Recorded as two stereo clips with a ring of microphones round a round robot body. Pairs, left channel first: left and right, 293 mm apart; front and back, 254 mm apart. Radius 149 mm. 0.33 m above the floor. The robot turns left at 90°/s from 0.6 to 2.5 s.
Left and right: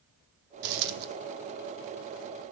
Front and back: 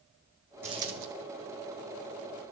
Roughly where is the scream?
No scream in this recording.